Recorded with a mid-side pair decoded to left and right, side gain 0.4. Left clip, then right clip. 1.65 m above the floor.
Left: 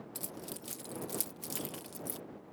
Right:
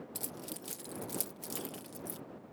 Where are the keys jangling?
15° right; by 2.2 s 30° left.